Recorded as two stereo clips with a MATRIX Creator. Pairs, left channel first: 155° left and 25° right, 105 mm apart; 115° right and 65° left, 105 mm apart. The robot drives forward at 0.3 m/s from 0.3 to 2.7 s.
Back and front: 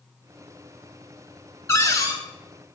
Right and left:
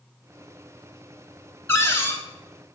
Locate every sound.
1.7 s a cupboard door: 160° right, 0.5 m; by 2.2 s 165° right, 0.6 m